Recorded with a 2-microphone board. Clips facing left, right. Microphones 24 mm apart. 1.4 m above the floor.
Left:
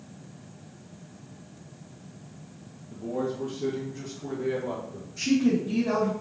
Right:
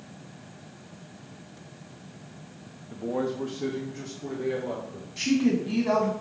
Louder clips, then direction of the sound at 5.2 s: Even; 60° right (ahead or behind).